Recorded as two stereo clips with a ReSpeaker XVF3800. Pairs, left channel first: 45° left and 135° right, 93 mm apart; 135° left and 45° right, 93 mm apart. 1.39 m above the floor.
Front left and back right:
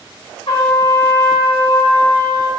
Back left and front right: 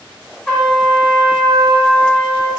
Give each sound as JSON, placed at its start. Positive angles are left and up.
{"t": 0.5, "sound": "a trumpet", "azimuth_deg": 55, "distance_m": 1.0}